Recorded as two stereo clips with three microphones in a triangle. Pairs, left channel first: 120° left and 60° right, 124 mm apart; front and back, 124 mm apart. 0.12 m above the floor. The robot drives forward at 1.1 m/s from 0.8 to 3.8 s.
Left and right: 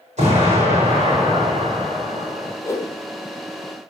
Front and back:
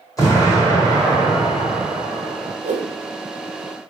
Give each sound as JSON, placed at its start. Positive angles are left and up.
{"t": 0.2, "sound": "an explosion", "azimuth_deg": -60, "distance_m": 5.0}
{"t": 2.6, "sound": "a whoosh", "azimuth_deg": -170, "distance_m": 1.6}